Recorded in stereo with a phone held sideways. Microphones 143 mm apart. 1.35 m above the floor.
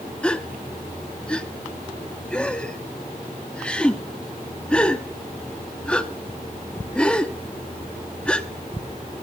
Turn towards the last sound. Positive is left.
turn(degrees=5)  # may be behind; listen again after turning